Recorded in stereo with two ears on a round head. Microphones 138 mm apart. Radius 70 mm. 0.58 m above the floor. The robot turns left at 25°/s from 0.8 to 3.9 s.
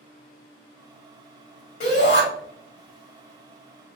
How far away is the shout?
About 1.5 m.